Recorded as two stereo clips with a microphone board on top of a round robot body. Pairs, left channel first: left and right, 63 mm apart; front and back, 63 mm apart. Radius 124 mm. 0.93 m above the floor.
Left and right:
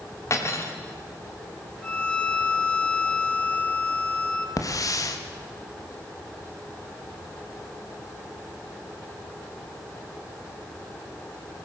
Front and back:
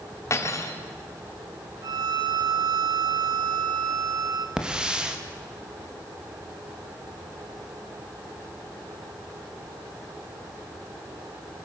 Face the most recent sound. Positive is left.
turn(degrees=105)